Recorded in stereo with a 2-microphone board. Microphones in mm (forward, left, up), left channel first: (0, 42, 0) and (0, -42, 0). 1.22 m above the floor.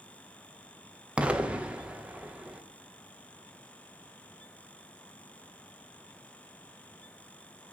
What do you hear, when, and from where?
1.2 s an explosion: 15° right (ahead or behind), 0.6 m